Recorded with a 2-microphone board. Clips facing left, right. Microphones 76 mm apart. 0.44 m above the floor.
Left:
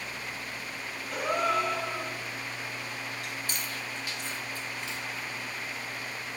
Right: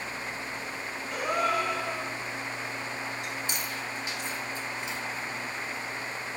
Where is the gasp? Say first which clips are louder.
Even; centre (ahead or behind), 3 m.